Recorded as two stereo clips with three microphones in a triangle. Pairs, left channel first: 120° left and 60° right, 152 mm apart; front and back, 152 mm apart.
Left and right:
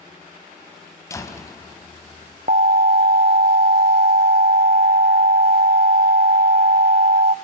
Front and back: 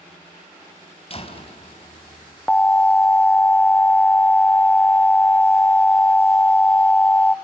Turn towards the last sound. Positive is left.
turn(degrees=-80)